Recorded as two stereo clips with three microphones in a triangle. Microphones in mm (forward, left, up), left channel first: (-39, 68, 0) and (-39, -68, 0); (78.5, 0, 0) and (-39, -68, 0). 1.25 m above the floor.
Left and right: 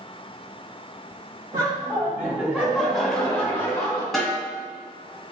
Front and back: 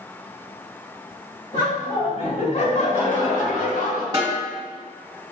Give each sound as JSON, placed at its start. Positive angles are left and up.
{"t": 1.5, "sound": "laughter", "azimuth_deg": -25, "distance_m": 1.8}
{"t": 4.1, "sound": "a snare drum", "azimuth_deg": 180, "distance_m": 1.3}